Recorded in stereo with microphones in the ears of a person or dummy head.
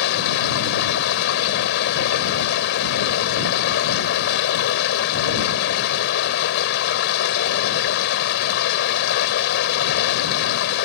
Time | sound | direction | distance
0.0 | running water | 65° left (ahead or behind) | ?